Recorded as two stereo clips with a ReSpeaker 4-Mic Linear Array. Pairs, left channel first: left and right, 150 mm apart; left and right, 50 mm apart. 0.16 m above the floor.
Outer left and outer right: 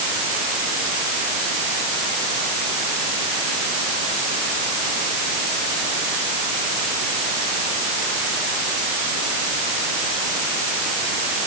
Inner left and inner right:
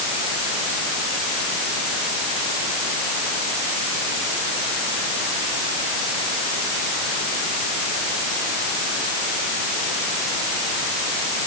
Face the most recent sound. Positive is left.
No sound to turn to.